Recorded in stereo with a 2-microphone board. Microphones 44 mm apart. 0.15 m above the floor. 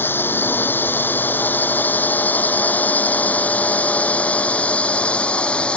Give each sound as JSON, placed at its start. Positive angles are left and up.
{"t": 0.0, "sound": "a drone", "side_deg": 50}